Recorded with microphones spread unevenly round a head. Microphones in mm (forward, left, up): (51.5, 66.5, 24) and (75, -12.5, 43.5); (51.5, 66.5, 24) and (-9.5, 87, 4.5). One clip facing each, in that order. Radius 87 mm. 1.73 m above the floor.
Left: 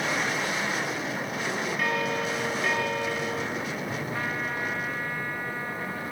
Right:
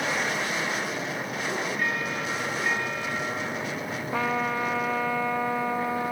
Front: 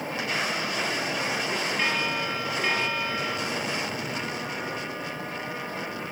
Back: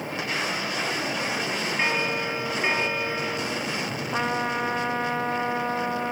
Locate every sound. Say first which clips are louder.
1.8 s a bell: left 2 dB, back 4 dB; 95° left, 3.5 m
4.1 s a trumpet: right 9 dB, back 6 dB; 125° right, 0.5 m